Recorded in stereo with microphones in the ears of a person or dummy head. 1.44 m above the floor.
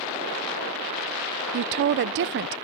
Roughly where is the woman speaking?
Right.